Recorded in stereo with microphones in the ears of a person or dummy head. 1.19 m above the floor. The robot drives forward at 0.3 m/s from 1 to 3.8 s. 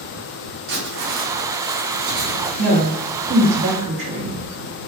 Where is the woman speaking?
60° right (ahead or behind), 0.6 m.